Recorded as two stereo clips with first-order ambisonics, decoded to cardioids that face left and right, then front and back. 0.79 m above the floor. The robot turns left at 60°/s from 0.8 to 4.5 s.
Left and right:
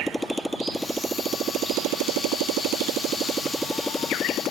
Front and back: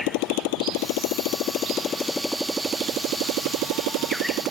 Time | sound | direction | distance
0.0 | a motorcycle | straight ahead | ?